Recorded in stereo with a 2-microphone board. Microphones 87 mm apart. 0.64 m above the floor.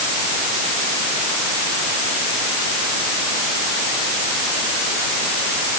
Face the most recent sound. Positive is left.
No sound to turn to.